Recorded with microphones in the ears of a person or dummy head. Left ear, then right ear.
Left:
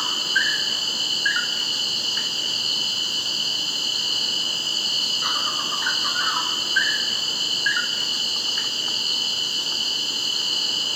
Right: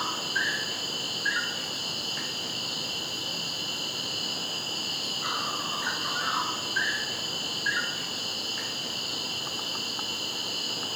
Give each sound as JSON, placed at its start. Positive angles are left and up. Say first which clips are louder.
{"t": 0.0, "sound": "an insect", "louder": "left 7 dB", "side_deg": 40, "distance_m": 0.8}